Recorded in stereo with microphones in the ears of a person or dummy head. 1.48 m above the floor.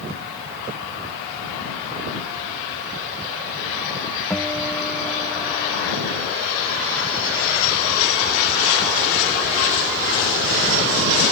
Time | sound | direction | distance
4.3 | a guitar | 10° left (ahead or behind) | ?